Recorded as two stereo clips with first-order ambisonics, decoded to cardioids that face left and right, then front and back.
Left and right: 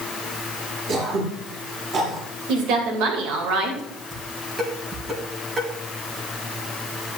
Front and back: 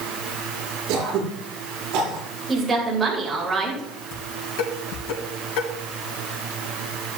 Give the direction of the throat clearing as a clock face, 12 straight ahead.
5 o'clock.